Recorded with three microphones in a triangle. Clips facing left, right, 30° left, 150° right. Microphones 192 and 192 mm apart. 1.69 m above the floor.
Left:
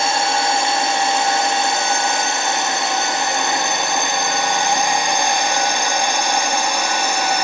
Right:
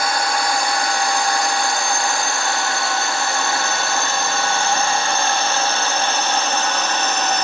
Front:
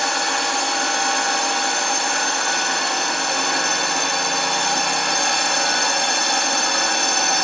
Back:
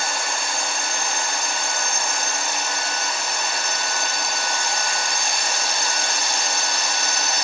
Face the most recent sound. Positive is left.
turn(degrees=10)